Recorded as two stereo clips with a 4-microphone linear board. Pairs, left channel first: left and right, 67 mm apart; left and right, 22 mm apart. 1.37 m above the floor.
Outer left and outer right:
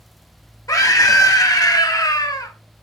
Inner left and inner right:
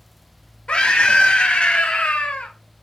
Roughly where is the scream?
Left.